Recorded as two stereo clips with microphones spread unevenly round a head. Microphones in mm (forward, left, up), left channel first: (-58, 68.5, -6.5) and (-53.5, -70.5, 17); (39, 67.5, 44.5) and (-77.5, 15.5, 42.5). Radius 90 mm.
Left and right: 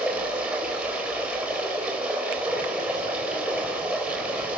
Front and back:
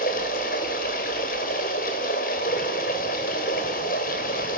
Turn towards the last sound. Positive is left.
turn(degrees=-5)